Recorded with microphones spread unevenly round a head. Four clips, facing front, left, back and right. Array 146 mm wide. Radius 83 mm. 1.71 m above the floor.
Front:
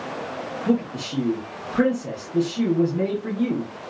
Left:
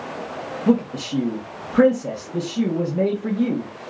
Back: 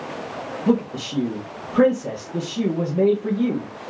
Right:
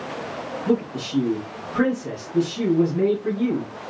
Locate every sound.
0.7 s a man speaking: 130° left, 2 m